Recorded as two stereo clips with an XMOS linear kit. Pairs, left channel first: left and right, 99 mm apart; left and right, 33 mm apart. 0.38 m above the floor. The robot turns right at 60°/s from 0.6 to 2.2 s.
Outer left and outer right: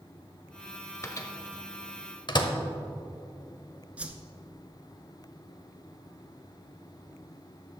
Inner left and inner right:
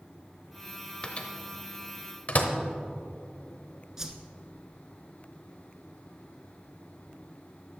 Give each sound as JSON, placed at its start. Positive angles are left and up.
{"t": 1.0, "sound": "a microwave", "side_deg": 30, "distance_m": 0.9}
{"t": 4.0, "sound": "a whoosh", "side_deg": -15, "distance_m": 0.7}